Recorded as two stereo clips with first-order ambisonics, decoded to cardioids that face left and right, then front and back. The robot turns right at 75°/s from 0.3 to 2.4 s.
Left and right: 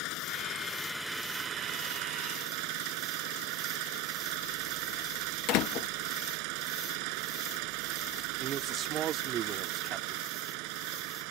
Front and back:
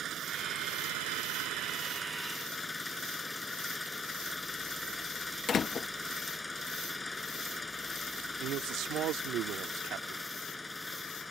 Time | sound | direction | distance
0.0 | an engine running | 120° left | ?
5.5 | a door slam | 65° left | ?
8.4 | a man speaking | 145° right | ?